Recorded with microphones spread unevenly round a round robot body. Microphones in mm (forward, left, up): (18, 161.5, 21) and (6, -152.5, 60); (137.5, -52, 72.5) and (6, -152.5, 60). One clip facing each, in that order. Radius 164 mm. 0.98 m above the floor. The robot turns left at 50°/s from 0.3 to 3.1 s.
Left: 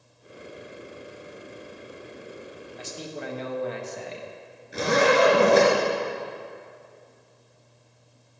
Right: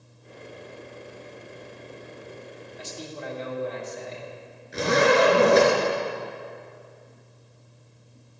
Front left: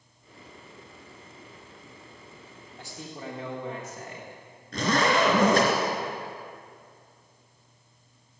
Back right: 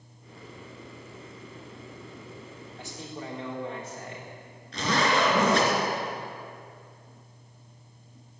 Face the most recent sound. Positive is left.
turn(degrees=0)